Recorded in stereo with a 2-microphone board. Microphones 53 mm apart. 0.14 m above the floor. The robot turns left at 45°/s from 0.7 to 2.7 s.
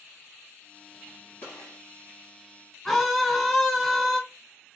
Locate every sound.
1.4 s a gunshot: 45° left (ahead or behind), 2.5 m; by 1.8 s 60° left (ahead or behind), 2.5 m
2.9 s a scream: 5° left (ahead or behind), 1.2 m